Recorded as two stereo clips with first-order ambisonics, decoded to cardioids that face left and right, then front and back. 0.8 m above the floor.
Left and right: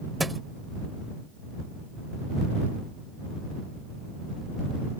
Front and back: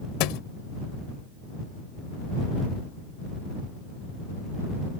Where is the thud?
5° right.